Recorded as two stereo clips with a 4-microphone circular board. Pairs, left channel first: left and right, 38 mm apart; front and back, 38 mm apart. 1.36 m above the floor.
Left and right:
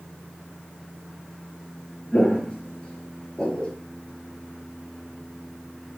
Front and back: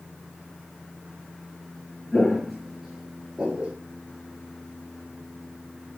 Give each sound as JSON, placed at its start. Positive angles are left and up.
{"t": 2.1, "sound": "footsteps", "azimuth_deg": 75, "distance_m": 1.4}